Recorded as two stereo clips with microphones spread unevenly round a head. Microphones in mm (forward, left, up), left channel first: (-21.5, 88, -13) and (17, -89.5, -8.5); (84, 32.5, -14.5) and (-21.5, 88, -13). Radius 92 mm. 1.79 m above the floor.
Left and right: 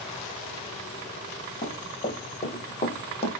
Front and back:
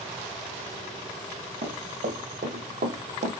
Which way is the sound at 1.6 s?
160° left.